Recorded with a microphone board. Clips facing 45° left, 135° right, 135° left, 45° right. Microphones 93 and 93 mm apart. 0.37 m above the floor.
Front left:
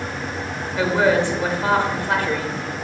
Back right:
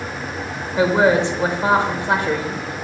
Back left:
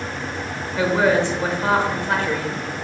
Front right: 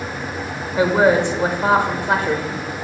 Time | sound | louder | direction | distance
0.8 | a woman speaking | back right 3 dB, front right 3 dB | 100° right | 0.9 m